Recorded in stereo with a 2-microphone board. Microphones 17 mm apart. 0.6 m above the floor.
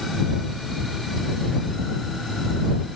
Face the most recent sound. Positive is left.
No sound to turn to.